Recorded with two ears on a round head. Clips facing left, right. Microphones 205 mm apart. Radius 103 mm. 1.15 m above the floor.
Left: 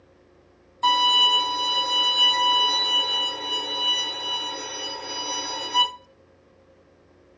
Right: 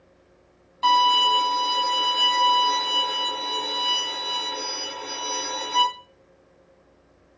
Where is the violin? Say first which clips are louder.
Right 3 dB; 5° right (ahead or behind), 1.9 m.